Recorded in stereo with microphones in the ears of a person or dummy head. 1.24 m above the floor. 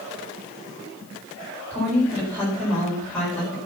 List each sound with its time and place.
1.7 s a woman speaking: 10° left (ahead or behind), 4.5 m